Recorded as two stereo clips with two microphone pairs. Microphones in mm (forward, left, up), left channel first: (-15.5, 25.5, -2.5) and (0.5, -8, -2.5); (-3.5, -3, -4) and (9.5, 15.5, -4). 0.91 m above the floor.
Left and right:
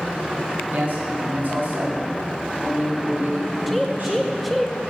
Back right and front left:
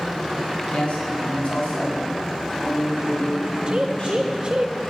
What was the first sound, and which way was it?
A man speaking, 95° right.